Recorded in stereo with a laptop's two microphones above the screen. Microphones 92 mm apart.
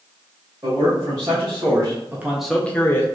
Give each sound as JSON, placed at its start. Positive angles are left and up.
{"t": 0.6, "sound": "a man speaking", "side_deg": -40, "distance_m": 1.6}